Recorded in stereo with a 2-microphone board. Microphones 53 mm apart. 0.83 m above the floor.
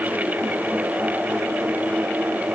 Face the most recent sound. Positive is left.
No sound to turn to.